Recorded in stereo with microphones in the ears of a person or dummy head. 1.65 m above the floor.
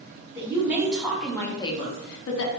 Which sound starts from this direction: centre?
A woman speaking, at 0.3 s.